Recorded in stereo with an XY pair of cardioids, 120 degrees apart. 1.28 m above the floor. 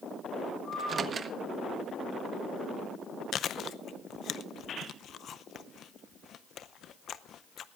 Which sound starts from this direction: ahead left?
Chewing, at 3.3 s.